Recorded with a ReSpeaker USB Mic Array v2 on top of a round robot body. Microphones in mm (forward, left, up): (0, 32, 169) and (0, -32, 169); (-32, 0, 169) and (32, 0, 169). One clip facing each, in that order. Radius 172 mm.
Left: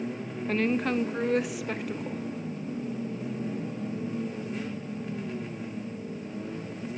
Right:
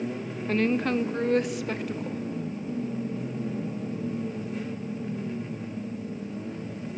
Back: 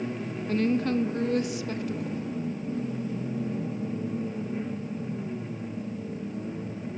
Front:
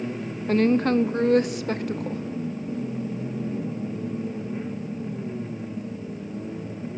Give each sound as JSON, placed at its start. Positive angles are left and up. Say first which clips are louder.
{"t": 0.5, "sound": "a woman speaking", "louder": "right 2 dB, front 6 dB", "azimuth_deg": 0, "distance_m": 0.7}